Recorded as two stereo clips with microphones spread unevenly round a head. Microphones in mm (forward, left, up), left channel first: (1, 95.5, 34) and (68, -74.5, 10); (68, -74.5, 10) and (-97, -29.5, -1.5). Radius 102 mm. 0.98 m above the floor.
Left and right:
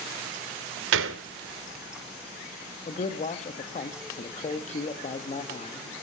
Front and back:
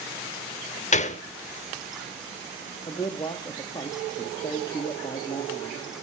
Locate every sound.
0.9 s a gunshot: 60° right, 1.1 m
2.9 s a man speaking: 55° left, 1.8 m